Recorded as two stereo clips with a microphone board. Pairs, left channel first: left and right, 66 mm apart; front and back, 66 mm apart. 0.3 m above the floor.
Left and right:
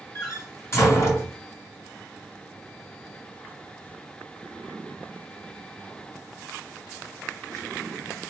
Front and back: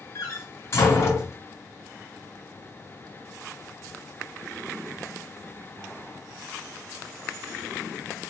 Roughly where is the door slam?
Ahead left.